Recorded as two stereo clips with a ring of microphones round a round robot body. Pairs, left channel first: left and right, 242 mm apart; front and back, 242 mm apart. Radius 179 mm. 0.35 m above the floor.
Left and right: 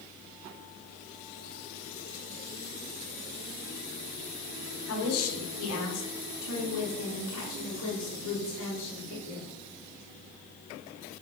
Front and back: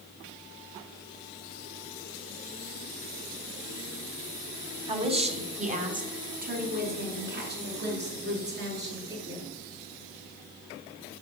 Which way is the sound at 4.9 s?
110° left.